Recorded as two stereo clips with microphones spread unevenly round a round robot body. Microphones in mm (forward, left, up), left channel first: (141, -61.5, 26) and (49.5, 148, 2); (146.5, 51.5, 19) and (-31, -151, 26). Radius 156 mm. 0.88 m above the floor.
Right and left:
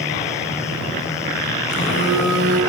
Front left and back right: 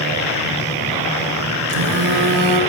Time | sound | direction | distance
1.7 | a phone buzzing | 125° right | 7 m